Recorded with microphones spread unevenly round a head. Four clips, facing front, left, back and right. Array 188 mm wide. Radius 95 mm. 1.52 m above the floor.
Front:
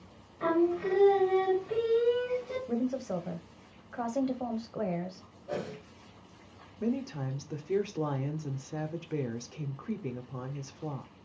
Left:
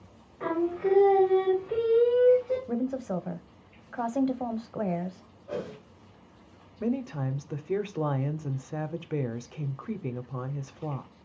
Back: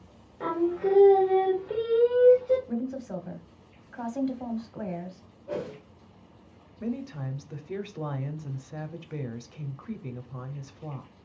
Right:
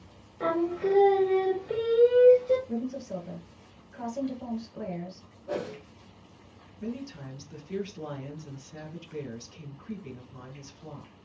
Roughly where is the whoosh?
Behind right.